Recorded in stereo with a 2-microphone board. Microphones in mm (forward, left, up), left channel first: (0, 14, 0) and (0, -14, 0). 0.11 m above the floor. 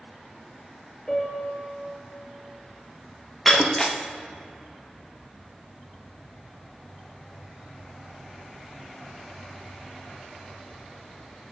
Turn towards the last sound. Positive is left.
turn(degrees=5)  # may be behind; listen again after turning